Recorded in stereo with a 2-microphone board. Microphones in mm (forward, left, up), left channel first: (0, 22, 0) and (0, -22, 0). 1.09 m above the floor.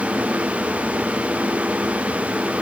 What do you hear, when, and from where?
Only background noise.